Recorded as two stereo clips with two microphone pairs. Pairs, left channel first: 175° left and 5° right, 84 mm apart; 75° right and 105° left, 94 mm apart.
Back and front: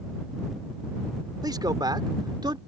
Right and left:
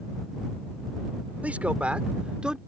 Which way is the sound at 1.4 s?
30° left.